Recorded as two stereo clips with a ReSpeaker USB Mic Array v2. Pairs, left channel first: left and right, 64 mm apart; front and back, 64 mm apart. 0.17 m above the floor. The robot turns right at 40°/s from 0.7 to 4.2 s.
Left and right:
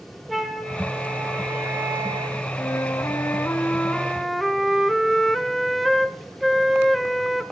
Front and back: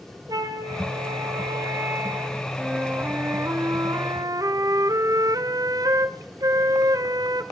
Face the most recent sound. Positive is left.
turn(degrees=175)